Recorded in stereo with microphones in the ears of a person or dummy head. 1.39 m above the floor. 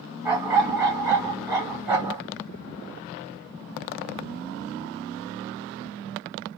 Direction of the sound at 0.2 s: 10° right (ahead or behind).